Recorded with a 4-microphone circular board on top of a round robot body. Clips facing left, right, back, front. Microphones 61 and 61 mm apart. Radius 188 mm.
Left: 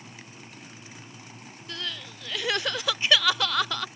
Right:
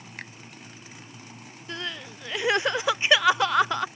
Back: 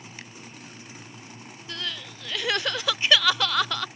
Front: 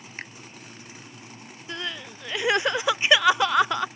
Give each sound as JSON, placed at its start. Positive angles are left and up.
{"t": 0.2, "sound": "a finger snap", "azimuth_deg": -55}
{"t": 1.7, "sound": "crying", "azimuth_deg": -45}